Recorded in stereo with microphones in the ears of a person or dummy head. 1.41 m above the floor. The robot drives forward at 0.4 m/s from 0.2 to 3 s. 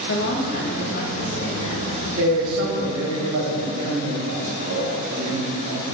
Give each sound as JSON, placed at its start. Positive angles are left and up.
{"t": 0.1, "sound": "a woman speaking", "side_deg": 55, "distance_m": 0.9}
{"t": 2.2, "sound": "a man speaking", "side_deg": -65, "distance_m": 1.5}